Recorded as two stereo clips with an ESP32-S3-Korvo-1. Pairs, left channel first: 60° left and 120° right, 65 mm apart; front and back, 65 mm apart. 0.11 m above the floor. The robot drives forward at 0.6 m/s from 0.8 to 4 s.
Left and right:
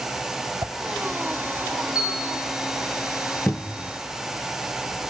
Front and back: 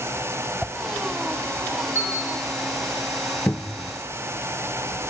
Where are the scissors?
I don't hear scissors.